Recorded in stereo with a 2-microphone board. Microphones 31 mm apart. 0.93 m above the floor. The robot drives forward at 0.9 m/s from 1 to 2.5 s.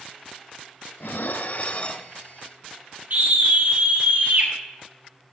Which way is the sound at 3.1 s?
60° right (ahead or behind).